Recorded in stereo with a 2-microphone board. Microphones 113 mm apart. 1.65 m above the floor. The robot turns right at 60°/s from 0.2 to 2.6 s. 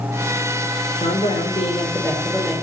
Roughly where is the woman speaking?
Left.